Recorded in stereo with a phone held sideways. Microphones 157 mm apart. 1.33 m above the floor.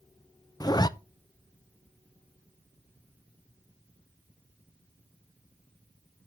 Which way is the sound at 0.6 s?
25° left (ahead or behind).